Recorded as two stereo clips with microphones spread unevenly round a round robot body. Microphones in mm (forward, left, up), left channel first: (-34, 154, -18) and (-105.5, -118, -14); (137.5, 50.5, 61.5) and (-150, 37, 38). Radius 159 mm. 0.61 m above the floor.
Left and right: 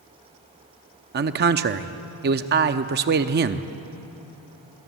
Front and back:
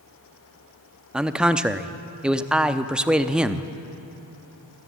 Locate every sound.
1.1 s a man speaking: 100° right, 0.6 m